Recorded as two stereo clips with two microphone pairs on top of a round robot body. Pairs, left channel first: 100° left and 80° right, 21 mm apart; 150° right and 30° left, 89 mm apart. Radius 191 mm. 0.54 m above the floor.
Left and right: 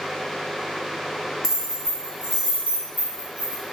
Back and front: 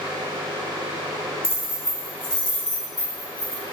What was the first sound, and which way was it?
Keys jangling, 25° right.